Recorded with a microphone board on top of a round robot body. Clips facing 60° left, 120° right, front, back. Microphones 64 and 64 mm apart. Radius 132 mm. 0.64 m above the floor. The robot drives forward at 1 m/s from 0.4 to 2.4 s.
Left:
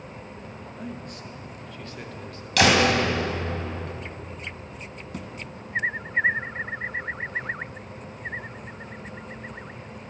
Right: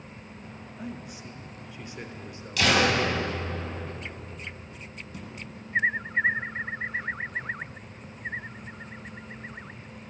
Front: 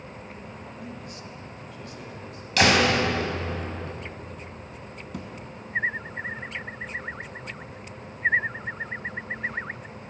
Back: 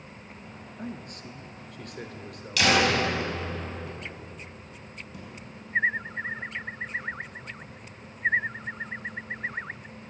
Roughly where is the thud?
Ahead left.